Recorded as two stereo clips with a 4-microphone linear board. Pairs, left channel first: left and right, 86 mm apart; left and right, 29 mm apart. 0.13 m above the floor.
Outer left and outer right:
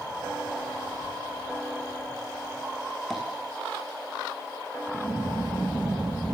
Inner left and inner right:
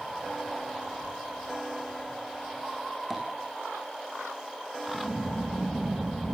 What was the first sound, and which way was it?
Tapping, centre (ahead or behind).